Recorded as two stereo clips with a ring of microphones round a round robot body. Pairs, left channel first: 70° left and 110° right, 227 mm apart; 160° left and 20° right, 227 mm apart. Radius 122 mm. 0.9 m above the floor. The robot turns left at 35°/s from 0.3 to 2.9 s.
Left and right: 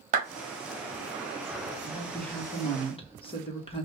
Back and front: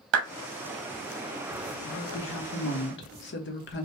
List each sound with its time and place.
0.1 s a clap: 55° right, 1.1 m
1.8 s a woman speaking: 165° left, 1.3 m; by 3.9 s 130° left, 1.3 m